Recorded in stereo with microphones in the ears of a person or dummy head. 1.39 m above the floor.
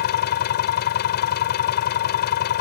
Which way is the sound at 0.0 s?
50° left (ahead or behind).